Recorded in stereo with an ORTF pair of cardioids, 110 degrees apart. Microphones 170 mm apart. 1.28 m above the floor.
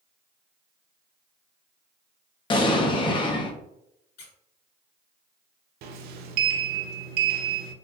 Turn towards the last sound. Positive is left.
turn(degrees=-70)